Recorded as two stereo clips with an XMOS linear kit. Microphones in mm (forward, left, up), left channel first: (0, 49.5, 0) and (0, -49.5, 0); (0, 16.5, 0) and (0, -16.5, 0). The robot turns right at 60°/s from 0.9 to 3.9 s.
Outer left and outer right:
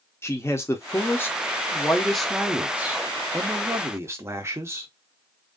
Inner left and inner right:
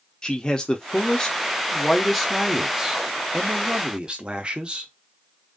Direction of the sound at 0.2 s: 25° left (ahead or behind).